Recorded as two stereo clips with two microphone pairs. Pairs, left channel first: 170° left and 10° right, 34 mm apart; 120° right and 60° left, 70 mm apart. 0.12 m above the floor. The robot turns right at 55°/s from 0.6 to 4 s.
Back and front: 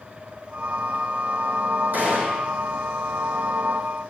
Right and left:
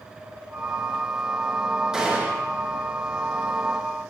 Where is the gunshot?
20° right, 4.5 m; by 2.5 s 10° left, 4.5 m.